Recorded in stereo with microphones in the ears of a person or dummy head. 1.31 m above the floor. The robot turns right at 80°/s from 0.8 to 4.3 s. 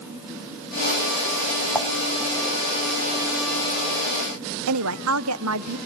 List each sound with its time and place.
1.8 s dishes clattering: centre (ahead or behind), 1.6 m; by 1.9 s 10° right (ahead or behind), 1.6 m
4.7 s a woman speaking: 75° right (ahead or behind), 0.7 m